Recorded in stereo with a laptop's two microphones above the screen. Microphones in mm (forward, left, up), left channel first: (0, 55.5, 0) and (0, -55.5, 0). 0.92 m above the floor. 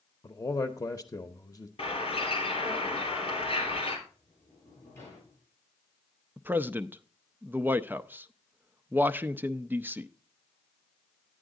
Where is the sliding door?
20° left (ahead or behind), 8.5 m.